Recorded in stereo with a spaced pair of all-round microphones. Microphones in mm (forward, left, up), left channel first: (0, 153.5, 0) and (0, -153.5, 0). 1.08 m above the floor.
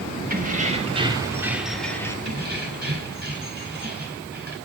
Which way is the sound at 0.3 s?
30° right (ahead or behind).